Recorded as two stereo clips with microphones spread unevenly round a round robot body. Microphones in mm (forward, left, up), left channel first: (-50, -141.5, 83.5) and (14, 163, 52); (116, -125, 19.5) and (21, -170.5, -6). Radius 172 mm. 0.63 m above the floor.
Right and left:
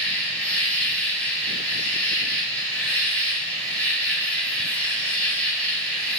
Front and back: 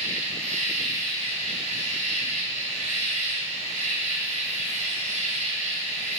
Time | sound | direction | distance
0.0 | an insect | 170° left | 1.4 m